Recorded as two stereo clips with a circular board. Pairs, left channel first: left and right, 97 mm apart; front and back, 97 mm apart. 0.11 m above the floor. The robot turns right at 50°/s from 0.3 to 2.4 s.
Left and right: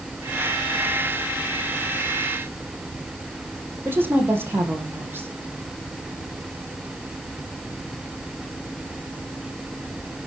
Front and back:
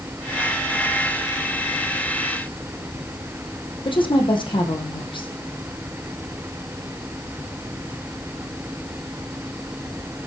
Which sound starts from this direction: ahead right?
A woman speaking, at 3.9 s.